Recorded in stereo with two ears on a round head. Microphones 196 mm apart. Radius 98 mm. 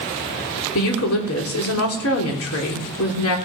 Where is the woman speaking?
70° left (ahead or behind), 3 m.